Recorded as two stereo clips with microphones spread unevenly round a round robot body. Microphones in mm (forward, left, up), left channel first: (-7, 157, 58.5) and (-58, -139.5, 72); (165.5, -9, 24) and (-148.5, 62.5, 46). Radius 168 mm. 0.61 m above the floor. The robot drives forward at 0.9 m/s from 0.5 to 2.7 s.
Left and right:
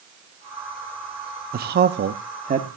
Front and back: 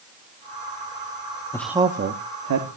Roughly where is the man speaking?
Right.